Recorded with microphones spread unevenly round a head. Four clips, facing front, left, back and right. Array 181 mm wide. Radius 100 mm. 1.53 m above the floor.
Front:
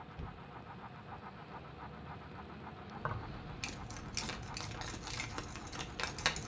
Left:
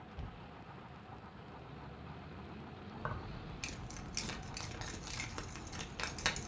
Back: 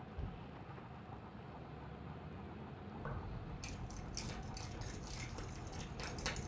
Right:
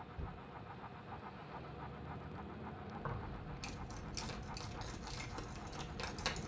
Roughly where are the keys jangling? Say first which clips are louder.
Left 4 dB, front 7 dB; ahead left.